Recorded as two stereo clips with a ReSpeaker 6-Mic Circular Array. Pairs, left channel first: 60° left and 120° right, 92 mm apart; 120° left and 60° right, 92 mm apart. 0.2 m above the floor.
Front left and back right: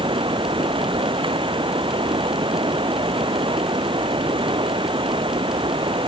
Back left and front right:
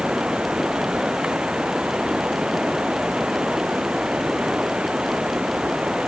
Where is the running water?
140° right.